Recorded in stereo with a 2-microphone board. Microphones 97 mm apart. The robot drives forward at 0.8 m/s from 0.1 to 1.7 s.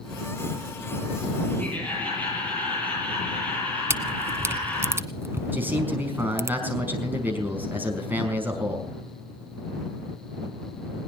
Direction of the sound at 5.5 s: 20° right (ahead or behind).